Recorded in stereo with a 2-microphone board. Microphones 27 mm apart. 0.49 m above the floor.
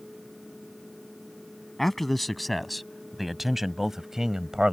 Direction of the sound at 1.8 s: 10° left (ahead or behind).